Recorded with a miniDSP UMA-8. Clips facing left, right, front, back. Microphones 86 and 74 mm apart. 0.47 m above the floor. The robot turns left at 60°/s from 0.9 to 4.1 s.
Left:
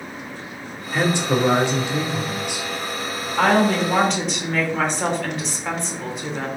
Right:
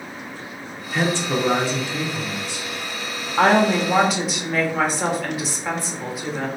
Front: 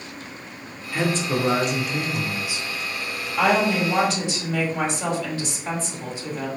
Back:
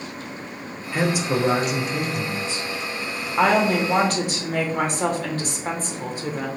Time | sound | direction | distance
0.9 | a man speaking | 145° left | 0.7 m
3.4 | a woman speaking | 130° right | 1.0 m